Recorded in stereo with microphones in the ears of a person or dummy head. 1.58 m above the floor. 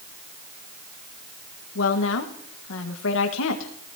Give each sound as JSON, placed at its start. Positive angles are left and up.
{"t": 1.8, "sound": "a woman speaking", "side_deg": 70, "distance_m": 1.7}